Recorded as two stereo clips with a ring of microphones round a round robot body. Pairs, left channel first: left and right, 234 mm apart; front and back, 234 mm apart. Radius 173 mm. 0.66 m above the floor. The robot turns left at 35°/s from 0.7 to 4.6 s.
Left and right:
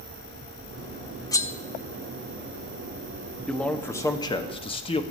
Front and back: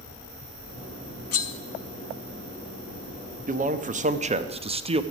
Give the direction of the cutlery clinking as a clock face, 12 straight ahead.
12 o'clock.